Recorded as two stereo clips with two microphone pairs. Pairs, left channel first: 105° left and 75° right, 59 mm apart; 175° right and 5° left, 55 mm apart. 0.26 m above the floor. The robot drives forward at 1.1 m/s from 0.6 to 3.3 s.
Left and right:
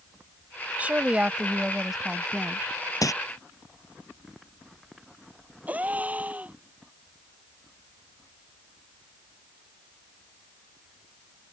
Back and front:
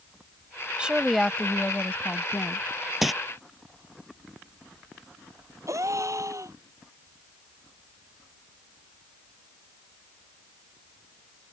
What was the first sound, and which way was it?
A woman speaking, 40° right.